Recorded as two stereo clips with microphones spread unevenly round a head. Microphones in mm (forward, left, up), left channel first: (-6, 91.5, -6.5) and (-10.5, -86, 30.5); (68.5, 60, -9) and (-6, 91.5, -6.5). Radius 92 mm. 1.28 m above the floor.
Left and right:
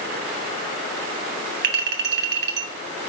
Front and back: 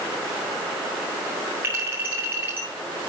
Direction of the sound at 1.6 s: 120° right.